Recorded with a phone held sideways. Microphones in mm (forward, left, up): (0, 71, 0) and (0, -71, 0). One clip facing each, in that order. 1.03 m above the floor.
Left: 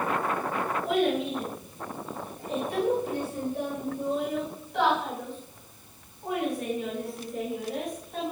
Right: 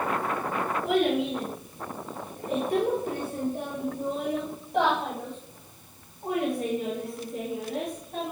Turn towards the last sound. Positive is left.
turn(degrees=-10)  # may be behind; listen again after turning